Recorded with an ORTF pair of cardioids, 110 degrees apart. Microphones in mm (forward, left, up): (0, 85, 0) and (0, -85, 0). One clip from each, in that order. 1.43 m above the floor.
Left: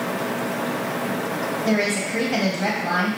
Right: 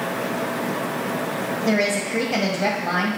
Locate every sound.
1.6 s a woman speaking: 10° right, 1.1 m